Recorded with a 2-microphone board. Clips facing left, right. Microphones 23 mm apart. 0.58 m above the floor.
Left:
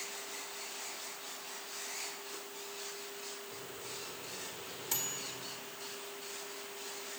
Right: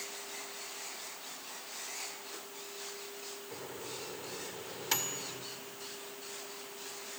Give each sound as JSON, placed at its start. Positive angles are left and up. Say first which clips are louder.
{"t": 3.5, "sound": "a microwave", "louder": "right 2 dB", "side_deg": -40, "distance_m": 1.7}